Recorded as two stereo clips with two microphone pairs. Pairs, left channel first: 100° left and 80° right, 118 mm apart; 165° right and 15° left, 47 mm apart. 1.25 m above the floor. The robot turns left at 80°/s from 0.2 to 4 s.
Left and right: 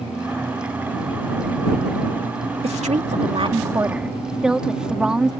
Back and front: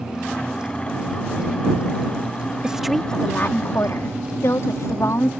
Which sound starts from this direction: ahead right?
A woman speaking, at 2.6 s.